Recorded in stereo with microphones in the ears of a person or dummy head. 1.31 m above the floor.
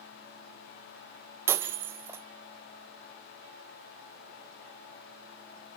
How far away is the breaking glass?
About 1.4 m.